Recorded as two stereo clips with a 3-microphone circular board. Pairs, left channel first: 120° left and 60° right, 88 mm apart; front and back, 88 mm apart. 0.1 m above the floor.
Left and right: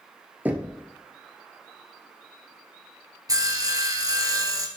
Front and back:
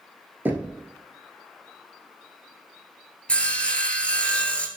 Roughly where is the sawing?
Right.